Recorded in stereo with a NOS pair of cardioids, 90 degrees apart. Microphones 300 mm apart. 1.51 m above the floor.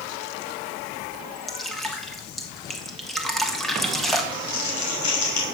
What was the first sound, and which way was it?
Dripping, straight ahead.